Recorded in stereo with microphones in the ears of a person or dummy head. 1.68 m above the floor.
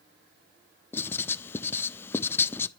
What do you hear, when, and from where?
0.9 s writing: 10° left (ahead or behind), 0.5 m